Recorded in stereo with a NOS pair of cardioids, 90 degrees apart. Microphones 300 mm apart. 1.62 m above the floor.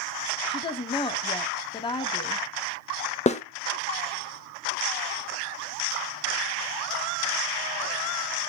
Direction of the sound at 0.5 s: 15° left.